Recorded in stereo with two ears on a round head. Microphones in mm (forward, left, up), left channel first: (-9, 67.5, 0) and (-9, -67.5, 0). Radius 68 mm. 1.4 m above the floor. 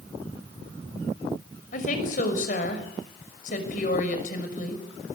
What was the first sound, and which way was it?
A woman speaking, 60° left (ahead or behind).